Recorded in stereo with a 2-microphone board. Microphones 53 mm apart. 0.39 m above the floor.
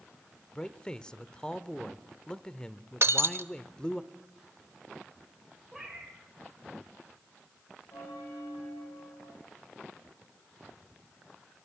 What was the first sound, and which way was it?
A man speaking, 20° left (ahead or behind).